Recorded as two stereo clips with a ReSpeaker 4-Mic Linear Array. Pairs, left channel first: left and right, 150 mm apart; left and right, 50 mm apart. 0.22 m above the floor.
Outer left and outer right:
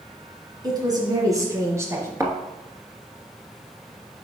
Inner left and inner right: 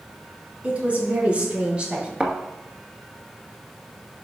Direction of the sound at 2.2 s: 20° right (ahead or behind).